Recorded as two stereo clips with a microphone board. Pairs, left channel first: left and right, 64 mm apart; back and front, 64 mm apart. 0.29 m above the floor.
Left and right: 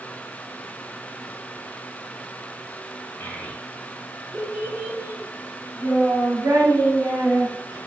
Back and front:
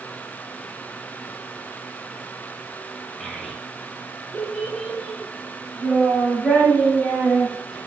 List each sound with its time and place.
3.2 s a child speaking: 95° left, 0.8 m; by 7.8 s 95° right, 2 m